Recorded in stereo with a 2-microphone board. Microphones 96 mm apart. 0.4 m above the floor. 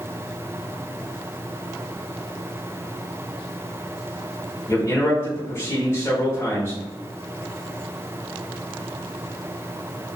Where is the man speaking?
25° left (ahead or behind), 1.3 m.